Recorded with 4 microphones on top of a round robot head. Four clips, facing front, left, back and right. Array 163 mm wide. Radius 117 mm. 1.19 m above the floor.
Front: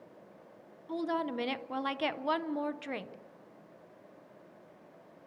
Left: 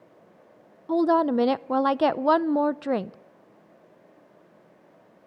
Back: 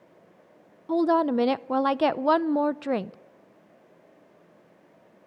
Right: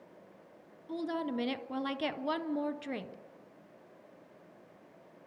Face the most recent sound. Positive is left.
turn(degrees=130)